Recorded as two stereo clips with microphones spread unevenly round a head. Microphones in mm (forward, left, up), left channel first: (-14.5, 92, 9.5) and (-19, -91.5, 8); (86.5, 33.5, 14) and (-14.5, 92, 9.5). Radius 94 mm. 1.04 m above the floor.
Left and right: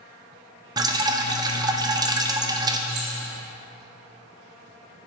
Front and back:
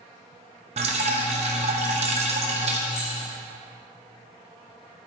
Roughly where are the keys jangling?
Right.